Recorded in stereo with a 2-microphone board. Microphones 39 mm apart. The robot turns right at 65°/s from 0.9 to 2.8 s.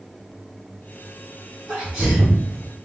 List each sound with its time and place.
1.7 s a sneeze: 10° right (ahead or behind), 1.4 m; by 2.4 s 20° right (ahead or behind), 1.4 m